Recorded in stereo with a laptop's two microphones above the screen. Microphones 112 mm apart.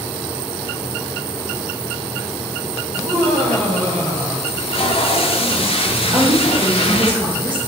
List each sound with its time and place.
2.9 s laughter: 70° right (ahead or behind), 3 m
4.5 s tape being pulled: 55° left (ahead or behind), 1.4 m
6.1 s a woman speaking: 50° right (ahead or behind), 3.5 m